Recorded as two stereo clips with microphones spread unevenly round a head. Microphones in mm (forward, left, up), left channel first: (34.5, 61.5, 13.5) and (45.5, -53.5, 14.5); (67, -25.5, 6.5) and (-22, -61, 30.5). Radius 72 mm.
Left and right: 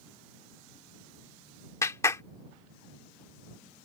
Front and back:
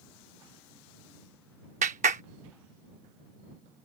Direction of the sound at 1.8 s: 165° left.